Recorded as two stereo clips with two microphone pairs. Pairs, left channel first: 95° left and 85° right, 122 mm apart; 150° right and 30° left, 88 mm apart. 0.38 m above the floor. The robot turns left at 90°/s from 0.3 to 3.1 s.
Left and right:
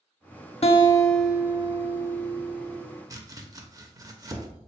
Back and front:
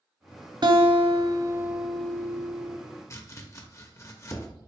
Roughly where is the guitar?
Ahead left.